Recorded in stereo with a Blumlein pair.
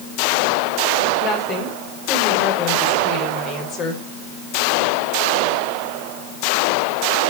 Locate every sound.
1.2 s a woman speaking: 30° left, 5 m